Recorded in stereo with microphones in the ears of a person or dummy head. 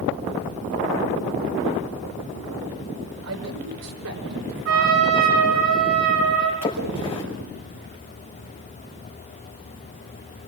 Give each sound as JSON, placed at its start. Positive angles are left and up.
{"t": 3.2, "sound": "a man speaking", "side_deg": -80, "distance_m": 6.0}
{"t": 4.7, "sound": "a trumpet", "side_deg": -75, "distance_m": 8.5}
{"t": 6.6, "sound": "a splash", "side_deg": 25, "distance_m": 6.0}